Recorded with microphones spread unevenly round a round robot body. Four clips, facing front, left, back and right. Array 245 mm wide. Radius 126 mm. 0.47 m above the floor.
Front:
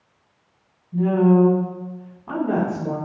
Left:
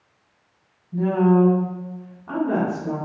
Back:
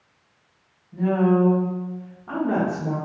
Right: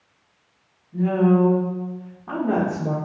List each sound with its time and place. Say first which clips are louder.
0.9 s a woman speaking: left 1 dB, front 3 dB; 75° left, 1.9 m; by 3.0 s 75° right, 1.8 m